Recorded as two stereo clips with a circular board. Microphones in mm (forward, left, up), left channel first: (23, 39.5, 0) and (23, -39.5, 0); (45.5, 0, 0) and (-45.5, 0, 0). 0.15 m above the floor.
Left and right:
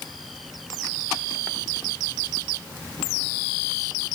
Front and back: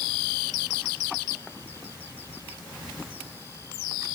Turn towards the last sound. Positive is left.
No sound to turn to.